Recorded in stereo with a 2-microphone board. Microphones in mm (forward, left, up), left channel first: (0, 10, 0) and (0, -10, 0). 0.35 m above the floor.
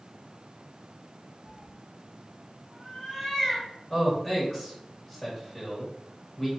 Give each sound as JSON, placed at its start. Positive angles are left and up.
{"t": 1.4, "sound": "a cat meowing", "side_deg": 20, "distance_m": 1.4}
{"t": 3.9, "sound": "a man speaking", "side_deg": 20, "distance_m": 1.4}